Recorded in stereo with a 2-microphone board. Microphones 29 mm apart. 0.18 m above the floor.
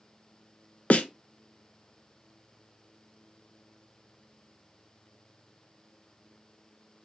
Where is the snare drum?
55° left (ahead or behind), 0.5 m.